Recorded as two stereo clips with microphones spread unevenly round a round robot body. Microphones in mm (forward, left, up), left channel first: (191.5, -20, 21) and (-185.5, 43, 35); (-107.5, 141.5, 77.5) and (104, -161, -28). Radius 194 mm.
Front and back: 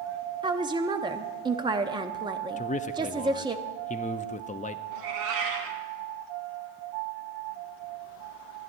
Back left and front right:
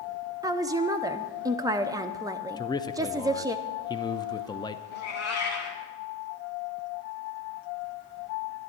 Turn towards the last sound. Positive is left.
turn(degrees=175)